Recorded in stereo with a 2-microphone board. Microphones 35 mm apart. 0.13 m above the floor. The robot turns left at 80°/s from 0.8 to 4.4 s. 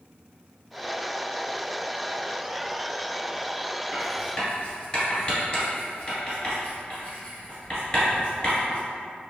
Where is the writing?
10° right (ahead or behind), 1.9 m; by 8.8 s 20° left (ahead or behind), 1.9 m.